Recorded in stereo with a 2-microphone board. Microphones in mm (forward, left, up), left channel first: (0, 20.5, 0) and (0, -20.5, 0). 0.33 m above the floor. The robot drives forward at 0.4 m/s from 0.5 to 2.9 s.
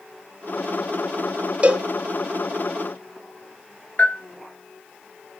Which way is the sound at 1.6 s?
30° right (ahead or behind).